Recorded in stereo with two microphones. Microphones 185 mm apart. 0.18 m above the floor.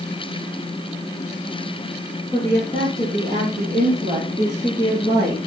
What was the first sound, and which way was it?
A woman speaking, 20° right (ahead or behind).